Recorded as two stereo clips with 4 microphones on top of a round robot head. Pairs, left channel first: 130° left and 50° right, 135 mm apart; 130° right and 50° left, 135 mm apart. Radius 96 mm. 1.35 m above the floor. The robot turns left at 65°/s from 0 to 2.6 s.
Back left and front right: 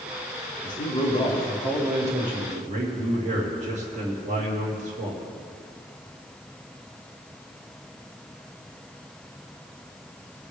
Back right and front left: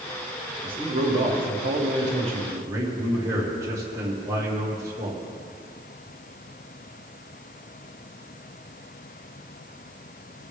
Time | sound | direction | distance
0.6 | a man speaking | 110° left | 2.5 m